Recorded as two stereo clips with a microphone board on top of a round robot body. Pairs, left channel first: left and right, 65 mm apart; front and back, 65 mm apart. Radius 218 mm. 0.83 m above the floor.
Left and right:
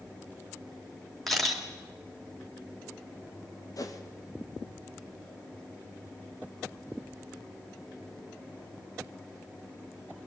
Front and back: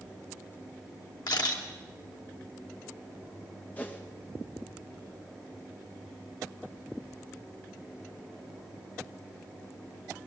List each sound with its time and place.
1.3 s a camera shutter: 5° left, 3 m
3.8 s a whoosh: 65° left, 2.5 m